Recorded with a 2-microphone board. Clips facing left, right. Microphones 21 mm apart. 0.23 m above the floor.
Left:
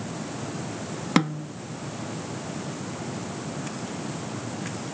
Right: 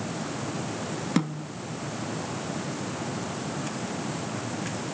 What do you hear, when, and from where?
1.2 s a snare drum: 35° left (ahead or behind), 0.5 m